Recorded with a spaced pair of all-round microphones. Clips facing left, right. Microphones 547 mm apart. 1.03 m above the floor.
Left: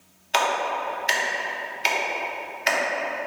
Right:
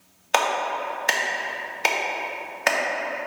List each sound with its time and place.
0.3 s a clap: 65° right (ahead or behind), 0.8 m